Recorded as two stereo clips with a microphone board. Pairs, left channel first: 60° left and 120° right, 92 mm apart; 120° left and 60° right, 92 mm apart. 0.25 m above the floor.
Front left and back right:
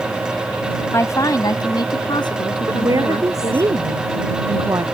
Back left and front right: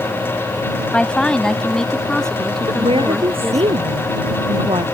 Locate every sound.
0.9 s a woman speaking: 50° left; by 3.7 s 35° left
2.7 s a woman speaking: 70° right